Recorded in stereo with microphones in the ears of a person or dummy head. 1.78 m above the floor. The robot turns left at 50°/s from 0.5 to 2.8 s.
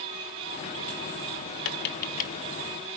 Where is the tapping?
70° left (ahead or behind), 1.2 m; by 2.3 s 40° left (ahead or behind), 1.2 m.